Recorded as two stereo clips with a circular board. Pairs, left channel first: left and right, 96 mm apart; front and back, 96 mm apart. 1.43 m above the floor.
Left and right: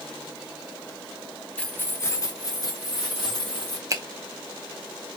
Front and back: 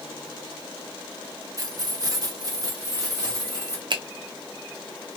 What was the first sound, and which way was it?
Keys jangling, 160° left.